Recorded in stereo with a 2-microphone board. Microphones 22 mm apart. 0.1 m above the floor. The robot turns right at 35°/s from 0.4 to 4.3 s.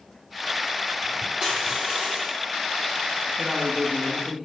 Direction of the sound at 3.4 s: 120° right.